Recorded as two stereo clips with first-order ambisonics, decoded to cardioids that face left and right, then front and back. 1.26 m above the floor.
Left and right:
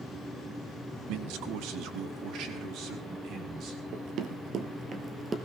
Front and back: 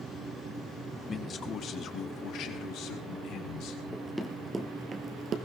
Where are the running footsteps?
80° right, 1.6 m; by 5.4 s 155° right, 1.4 m.